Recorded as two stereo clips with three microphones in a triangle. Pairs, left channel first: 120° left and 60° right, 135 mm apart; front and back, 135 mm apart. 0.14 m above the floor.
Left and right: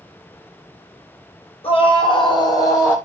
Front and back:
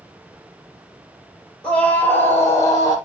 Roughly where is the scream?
Left.